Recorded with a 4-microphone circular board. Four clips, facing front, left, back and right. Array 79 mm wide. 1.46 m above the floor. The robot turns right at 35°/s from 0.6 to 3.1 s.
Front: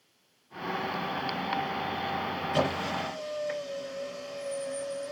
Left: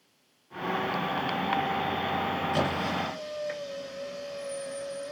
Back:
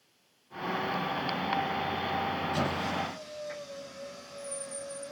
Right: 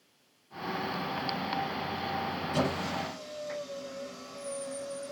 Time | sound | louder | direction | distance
2.5 | a squeak | right 1 dB, front 2 dB | 15° left | 1.9 m